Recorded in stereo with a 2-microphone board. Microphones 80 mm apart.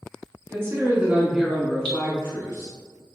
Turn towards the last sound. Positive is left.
turn(degrees=10)  # may be behind; listen again after turning